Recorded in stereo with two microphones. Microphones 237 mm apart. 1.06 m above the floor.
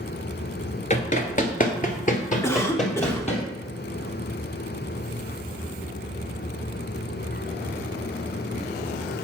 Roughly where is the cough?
Centre.